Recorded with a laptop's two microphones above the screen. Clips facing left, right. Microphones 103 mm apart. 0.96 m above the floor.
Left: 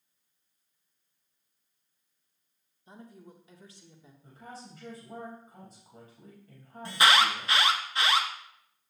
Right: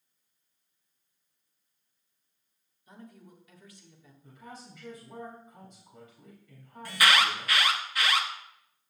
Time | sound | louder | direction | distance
2.9 | a woman speaking | left 1 dB | 25° left (ahead or behind) | 1.1 m
4.2 | a woman speaking | left 1 dB | 40° left (ahead or behind) | 4.5 m
6.8 | an alarm | left 2 dB | 25° left (ahead or behind) | 1.0 m